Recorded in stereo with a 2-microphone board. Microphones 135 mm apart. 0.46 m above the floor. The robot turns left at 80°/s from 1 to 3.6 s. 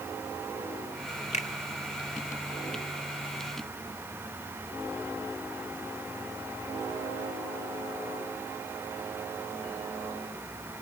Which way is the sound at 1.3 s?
60° left (ahead or behind).